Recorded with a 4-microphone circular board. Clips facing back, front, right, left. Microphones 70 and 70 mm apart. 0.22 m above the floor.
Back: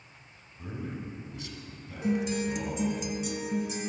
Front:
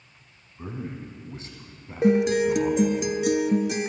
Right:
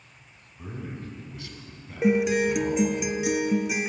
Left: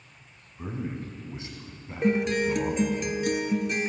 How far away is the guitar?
About 0.5 m.